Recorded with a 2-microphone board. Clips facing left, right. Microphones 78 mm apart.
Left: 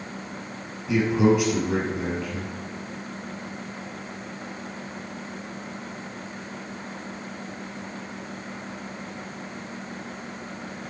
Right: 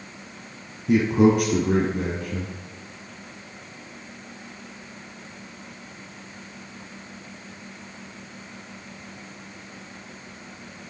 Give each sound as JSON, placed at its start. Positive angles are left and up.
{"t": 0.9, "sound": "a man speaking", "side_deg": -50, "distance_m": 3.0}